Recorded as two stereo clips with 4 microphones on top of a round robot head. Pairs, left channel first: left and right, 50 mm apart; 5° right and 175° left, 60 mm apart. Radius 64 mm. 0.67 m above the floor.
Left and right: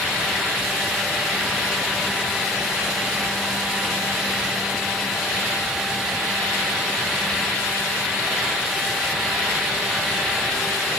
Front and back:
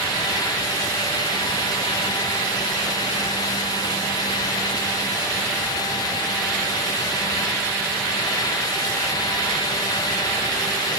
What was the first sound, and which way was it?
Only background noise.